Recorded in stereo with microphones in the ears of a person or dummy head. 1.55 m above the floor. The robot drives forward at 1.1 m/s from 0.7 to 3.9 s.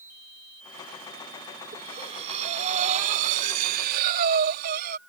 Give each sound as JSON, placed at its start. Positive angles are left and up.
{"t": 1.7, "sound": "breathing", "side_deg": -30}